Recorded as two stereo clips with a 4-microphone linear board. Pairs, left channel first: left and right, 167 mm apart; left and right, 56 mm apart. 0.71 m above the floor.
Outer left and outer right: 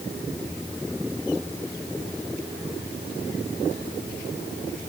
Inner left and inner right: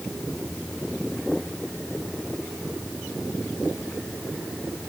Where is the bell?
I don't hear a bell.